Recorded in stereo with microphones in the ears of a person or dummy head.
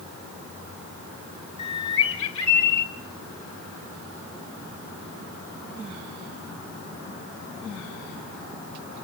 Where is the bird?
35° left (ahead or behind), 2.5 m.